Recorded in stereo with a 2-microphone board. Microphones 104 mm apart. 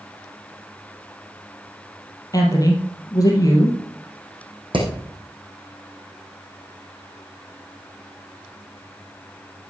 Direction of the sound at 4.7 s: 55° right (ahead or behind).